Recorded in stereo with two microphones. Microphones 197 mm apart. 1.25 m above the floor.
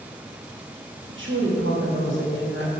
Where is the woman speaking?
80° right, 2 m.